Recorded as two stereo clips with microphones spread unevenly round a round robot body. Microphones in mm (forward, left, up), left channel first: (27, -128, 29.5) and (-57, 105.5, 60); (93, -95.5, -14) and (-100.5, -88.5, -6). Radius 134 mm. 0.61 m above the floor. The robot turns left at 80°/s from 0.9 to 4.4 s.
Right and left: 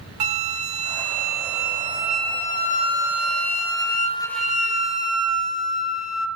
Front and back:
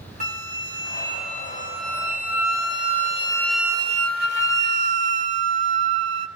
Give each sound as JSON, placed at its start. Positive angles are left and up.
{"t": 0.2, "sound": "a flute", "azimuth_deg": 120, "distance_m": 1.3}